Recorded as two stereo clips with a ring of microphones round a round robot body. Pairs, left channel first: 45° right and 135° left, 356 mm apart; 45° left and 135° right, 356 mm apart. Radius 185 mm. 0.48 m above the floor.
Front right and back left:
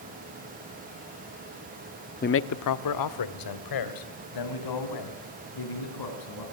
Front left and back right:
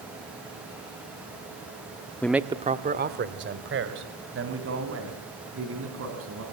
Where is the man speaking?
30° right, 0.7 m; by 6.4 s 80° right, 5 m.